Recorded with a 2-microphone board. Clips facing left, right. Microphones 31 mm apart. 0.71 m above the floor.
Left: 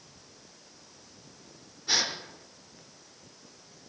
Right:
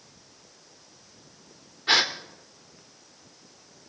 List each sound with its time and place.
1.9 s a gasp: 60° right (ahead or behind), 0.8 m